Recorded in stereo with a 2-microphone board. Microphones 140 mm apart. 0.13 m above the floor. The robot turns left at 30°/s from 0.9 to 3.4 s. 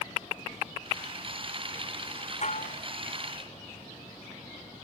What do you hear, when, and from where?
2.4 s dishes clattering: 55° left (ahead or behind); by 2.8 s 65° left (ahead or behind)